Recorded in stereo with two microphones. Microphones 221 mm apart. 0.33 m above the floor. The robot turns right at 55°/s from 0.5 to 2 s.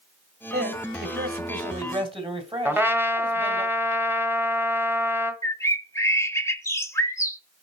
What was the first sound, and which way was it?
A man speaking, 115° right.